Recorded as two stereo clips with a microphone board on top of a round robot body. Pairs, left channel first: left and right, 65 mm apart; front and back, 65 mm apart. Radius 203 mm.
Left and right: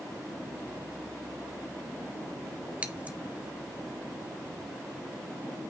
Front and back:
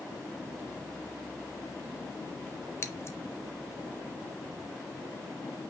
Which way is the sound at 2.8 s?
30° right.